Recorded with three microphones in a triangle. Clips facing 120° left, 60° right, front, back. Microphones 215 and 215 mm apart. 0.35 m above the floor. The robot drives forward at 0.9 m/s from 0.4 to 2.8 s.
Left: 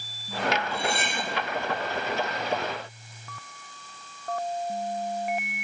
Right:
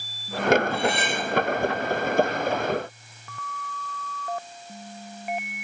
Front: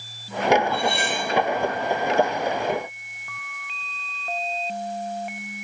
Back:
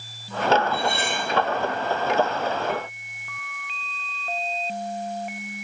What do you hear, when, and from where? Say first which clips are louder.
0.7 s cutlery clinking: right 5 dB, front 1 dB; 70° right, 4.5 m; by 1.3 s 75° right, 4.5 m